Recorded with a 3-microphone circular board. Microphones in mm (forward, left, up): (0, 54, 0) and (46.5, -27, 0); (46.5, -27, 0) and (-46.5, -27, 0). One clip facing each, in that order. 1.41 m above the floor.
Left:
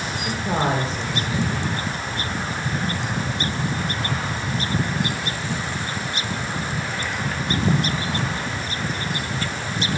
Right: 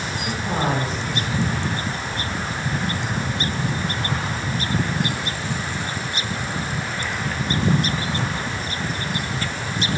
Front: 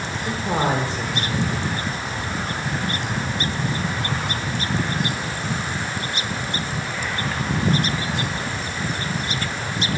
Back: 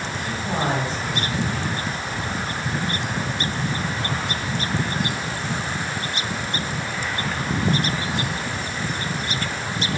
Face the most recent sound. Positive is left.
turn(degrees=65)